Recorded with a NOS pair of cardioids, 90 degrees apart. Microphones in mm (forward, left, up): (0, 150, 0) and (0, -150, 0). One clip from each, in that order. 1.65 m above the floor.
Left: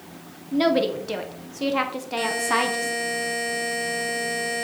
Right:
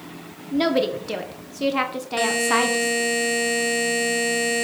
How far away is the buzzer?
About 1.9 m.